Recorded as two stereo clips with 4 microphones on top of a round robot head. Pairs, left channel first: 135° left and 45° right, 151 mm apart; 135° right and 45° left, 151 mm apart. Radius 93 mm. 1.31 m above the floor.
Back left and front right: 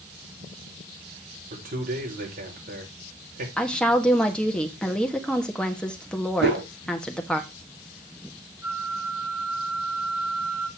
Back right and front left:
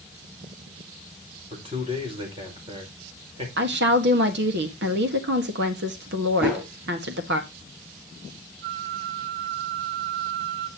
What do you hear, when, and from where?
1.5 s a man speaking: 10° right, 4.5 m
3.6 s a woman speaking: 50° left, 1.6 m
6.4 s a whoosh: 35° right, 4 m
8.6 s a flute: 35° left, 1.1 m